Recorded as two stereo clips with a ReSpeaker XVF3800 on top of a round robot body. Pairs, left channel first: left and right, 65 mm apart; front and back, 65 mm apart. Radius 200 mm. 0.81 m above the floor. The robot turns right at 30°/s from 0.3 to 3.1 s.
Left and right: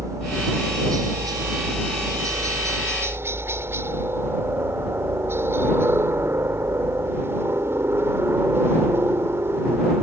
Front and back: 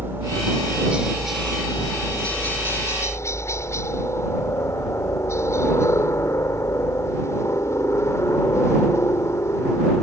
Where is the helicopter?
125° right; by 10.0 s 40° right.